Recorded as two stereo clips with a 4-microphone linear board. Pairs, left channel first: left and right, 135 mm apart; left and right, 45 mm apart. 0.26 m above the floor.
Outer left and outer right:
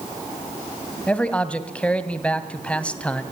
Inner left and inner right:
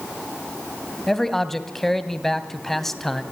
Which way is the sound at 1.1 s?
10° left (ahead or behind).